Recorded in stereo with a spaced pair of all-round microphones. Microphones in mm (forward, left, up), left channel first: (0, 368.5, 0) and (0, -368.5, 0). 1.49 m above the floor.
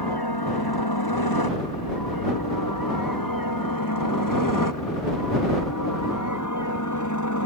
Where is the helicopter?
30° left (ahead or behind); by 7.5 s 25° left (ahead or behind).